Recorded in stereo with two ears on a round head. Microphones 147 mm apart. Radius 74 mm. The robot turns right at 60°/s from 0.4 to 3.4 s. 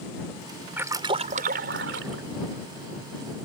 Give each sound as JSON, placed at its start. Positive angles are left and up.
{"t": 0.8, "sound": "a splash", "azimuth_deg": -170}